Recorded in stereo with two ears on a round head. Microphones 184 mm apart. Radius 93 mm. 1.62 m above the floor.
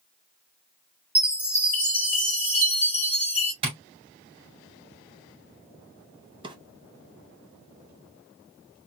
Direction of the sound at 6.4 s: 25° right (ahead or behind).